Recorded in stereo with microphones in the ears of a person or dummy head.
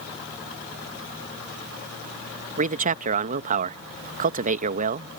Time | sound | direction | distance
2.6 | a man speaking | 40° right (ahead or behind) | ?